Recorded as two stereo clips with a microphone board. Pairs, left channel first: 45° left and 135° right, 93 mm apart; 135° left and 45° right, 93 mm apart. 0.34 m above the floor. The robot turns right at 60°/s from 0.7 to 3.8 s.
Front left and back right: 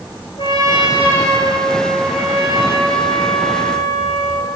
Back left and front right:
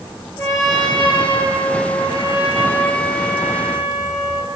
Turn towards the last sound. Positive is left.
turn(degrees=-95)